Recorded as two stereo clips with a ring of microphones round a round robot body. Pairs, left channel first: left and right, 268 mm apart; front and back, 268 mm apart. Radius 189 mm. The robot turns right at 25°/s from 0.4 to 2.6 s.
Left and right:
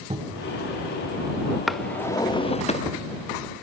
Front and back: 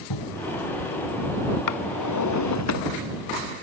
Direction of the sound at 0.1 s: 20° right.